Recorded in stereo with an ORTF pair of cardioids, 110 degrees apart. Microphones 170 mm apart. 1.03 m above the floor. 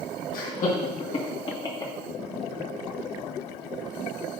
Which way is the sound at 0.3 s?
60° left.